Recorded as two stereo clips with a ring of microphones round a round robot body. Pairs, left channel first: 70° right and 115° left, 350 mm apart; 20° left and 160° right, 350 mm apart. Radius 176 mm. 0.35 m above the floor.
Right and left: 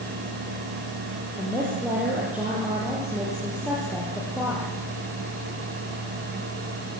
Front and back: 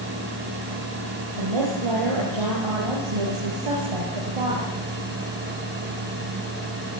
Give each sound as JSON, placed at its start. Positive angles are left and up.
{"t": 1.4, "sound": "a woman speaking", "azimuth_deg": -165, "distance_m": 8.5}